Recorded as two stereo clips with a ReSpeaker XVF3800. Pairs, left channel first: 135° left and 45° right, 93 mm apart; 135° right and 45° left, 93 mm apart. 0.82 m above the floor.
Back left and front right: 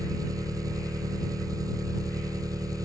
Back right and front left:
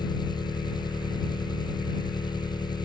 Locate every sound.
0.0 s an engine running: 95° right